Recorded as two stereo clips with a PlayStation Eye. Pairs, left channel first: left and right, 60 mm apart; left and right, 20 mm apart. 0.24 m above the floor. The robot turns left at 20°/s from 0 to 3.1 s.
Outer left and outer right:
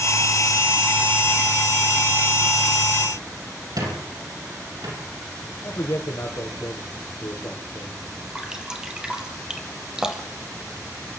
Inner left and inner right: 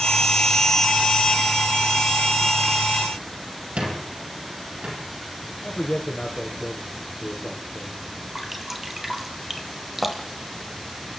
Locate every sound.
3.8 s a squeak: 80° right, 7 m
5.6 s a man speaking: 50° left (ahead or behind), 6.5 m
8.3 s dripping: 10° right (ahead or behind), 3 m